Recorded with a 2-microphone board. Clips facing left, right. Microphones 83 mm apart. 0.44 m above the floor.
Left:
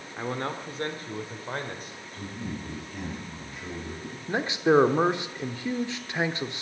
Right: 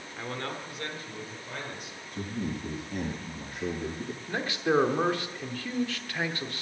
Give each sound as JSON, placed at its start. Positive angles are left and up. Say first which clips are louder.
{"t": 0.2, "sound": "a man speaking", "louder": "left 5 dB", "side_deg": 20, "distance_m": 1.5}
{"t": 2.1, "sound": "a man speaking", "louder": "right 3 dB", "side_deg": -75, "distance_m": 6.0}
{"t": 4.3, "sound": "a man speaking", "louder": "left 5 dB", "side_deg": 20, "distance_m": 0.9}